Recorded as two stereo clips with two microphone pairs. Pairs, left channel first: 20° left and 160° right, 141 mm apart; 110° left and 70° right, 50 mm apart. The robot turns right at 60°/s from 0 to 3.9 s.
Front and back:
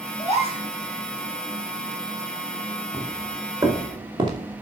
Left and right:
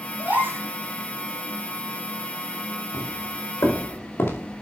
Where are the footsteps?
95° left, 4.5 m; by 4.5 s 140° left, 4 m.